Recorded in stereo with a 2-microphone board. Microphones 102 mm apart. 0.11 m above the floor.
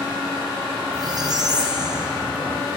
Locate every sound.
0.9 s a squeak: 45° right (ahead or behind), 1.2 m